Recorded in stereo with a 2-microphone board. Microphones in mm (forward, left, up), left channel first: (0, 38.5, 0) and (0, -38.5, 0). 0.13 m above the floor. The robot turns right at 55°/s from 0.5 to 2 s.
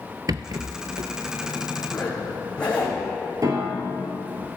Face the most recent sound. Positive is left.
turn(degrees=-55)  # may be behind; listen again after turning